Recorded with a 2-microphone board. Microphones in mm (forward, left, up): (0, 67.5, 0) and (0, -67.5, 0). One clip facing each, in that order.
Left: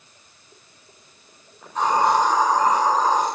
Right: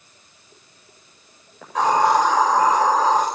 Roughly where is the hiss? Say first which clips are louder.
Right 2 dB; right.